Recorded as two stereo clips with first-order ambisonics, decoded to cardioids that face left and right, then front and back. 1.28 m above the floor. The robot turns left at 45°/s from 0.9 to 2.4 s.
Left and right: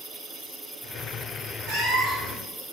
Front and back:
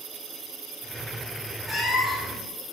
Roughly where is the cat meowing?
Right.